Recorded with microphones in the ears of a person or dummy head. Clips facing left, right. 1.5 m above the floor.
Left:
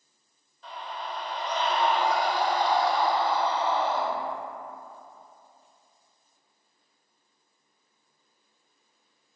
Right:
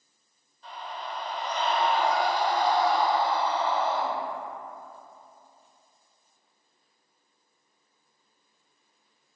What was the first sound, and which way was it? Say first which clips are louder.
A scream: left 1 dB; 65° left (ahead or behind).